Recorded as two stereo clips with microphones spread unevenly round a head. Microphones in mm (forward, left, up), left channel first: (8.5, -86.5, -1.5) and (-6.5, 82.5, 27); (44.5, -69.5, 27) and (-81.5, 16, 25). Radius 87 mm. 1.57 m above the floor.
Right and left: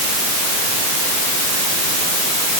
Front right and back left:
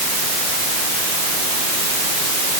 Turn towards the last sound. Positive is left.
No sound to turn to.